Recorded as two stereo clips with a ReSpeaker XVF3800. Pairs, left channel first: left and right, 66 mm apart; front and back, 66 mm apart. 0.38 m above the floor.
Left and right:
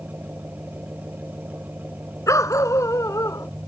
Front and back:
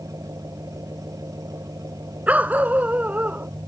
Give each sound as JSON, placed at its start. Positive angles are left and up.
{"t": 0.0, "sound": "an engine running", "azimuth_deg": -150}
{"t": 2.3, "sound": "a dog barking", "azimuth_deg": 115}